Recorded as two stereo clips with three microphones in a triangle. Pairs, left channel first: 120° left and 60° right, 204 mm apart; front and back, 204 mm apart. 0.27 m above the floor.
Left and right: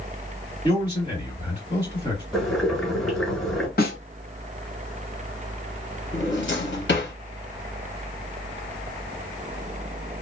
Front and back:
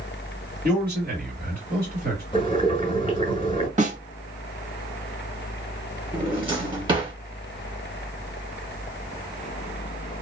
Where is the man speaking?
Straight behind, 2.5 m.